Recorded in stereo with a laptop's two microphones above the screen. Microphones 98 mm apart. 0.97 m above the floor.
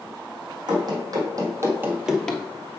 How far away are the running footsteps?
About 2.5 m.